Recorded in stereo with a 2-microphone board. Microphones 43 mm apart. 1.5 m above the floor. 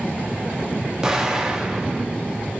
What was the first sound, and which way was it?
An explosion, 15° right (ahead or behind).